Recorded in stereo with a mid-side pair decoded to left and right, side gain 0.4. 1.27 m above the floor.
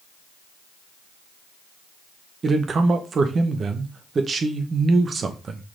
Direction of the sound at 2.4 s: 50° right.